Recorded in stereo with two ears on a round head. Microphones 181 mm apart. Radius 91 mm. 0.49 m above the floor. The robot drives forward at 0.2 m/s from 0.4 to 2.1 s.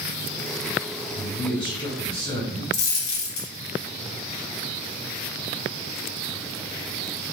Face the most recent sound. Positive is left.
turn(degrees=60)  # may be behind; listen again after turning